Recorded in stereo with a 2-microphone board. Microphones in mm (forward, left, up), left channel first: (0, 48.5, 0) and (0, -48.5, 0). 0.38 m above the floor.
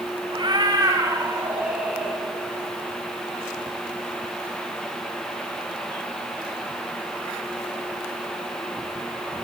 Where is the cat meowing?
50° right (ahead or behind), 2 m; by 2.2 s centre (ahead or behind), 2.5 m.